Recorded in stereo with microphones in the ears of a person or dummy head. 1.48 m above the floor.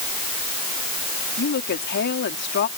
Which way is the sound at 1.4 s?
60° left (ahead or behind).